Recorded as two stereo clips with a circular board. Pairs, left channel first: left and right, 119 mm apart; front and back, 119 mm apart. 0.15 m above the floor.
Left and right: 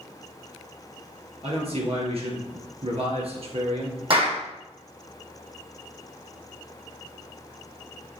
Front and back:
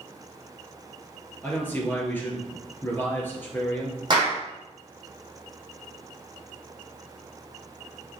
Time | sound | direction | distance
1.4 | a man speaking | 70° right | 2.5 m
4.1 | a clap | 130° right | 4.5 m